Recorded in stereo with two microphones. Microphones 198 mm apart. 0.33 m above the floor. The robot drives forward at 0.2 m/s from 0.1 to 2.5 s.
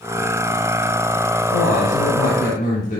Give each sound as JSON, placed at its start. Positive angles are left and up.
{"t": 1.5, "sound": "a woman speaking", "side_deg": 50, "distance_m": 2.0}